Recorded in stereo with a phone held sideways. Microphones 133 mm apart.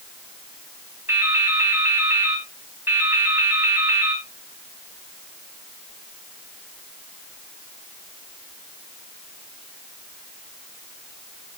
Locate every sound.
1.1 s dripping: 15° right (ahead or behind), 3 m